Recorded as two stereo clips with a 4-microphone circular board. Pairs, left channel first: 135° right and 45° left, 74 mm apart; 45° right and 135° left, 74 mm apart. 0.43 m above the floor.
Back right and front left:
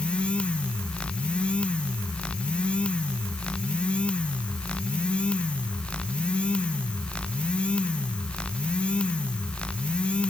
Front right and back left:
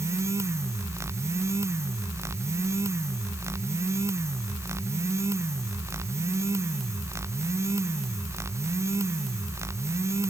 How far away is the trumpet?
No trumpet in this recording.